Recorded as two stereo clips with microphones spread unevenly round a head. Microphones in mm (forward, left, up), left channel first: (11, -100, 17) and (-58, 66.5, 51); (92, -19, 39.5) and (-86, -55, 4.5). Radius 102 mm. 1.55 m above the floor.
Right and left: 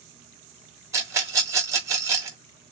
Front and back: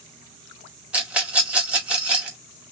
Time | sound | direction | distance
0.9 | a rattle | 95° left | 0.9 m